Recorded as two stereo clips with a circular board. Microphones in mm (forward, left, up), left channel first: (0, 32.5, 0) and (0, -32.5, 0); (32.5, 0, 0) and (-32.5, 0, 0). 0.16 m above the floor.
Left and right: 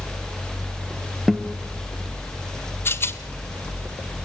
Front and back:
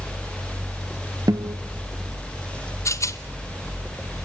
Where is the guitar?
Straight behind, 1.8 m.